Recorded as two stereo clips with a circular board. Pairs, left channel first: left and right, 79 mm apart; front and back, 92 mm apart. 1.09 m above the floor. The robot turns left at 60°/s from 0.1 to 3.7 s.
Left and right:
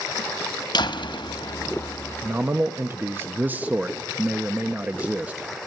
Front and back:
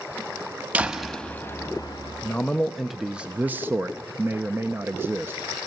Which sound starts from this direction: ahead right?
A man speaking, at 2.2 s.